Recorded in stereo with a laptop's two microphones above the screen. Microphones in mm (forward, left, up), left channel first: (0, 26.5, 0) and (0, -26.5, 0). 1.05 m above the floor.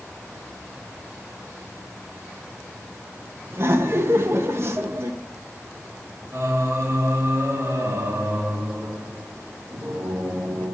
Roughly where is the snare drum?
I don't hear a snare drum.